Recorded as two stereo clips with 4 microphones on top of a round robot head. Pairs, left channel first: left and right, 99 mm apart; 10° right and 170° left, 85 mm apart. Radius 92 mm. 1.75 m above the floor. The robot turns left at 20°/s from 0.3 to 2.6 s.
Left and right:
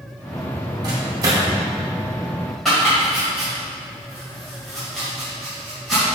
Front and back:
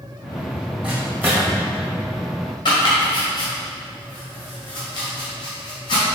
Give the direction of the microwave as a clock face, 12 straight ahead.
4 o'clock.